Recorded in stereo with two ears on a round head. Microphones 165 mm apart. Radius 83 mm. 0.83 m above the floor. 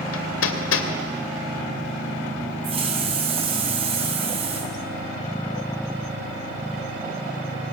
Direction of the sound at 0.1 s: 85° left.